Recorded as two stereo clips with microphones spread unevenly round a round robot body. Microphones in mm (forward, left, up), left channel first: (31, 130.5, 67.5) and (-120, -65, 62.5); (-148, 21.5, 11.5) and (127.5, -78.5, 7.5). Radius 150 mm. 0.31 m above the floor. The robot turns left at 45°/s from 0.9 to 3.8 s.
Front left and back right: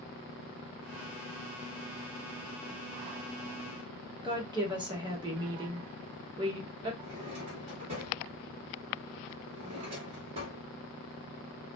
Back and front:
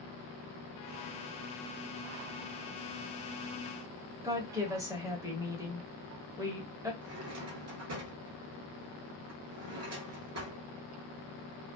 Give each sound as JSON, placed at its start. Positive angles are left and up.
{"t": 4.2, "sound": "a woman speaking", "azimuth_deg": -85, "distance_m": 1.0}
{"t": 7.0, "sound": "a drawer", "azimuth_deg": -60, "distance_m": 1.2}